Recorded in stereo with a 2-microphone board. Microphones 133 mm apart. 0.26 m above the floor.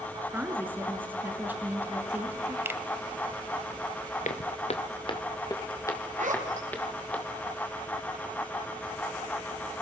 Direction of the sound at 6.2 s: 75° right (ahead or behind).